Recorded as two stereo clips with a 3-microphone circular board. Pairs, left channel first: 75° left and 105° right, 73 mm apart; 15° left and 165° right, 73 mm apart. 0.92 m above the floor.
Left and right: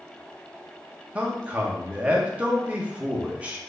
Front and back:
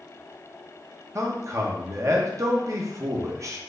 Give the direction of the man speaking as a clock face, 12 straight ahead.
6 o'clock.